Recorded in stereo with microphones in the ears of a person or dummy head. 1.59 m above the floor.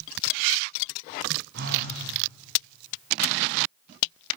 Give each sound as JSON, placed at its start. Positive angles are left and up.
{"t": 1.5, "sound": "a phone buzzing", "side_deg": -65, "distance_m": 8.0}